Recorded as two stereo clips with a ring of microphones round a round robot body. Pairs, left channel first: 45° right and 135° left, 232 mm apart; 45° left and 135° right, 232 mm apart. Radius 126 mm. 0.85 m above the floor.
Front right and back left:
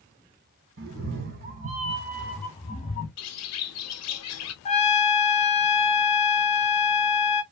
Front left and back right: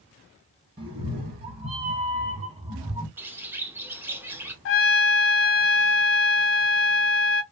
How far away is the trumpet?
About 0.7 m.